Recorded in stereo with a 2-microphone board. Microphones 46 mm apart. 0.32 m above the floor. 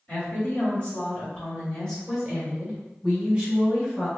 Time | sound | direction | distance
0.1 | a woman speaking | 35° left (ahead or behind) | 1.7 m